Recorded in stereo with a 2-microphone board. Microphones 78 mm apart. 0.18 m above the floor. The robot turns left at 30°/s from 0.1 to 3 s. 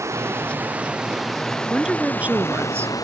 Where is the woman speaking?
5° right; by 2.9 s 40° right.